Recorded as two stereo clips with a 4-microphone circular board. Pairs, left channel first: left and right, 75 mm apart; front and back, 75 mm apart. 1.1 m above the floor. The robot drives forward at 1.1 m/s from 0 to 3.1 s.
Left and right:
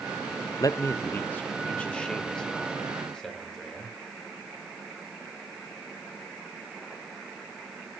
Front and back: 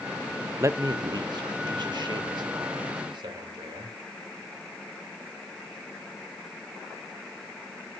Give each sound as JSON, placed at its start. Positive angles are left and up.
{"t": 0.6, "sound": "a man speaking", "azimuth_deg": 125, "distance_m": 0.6}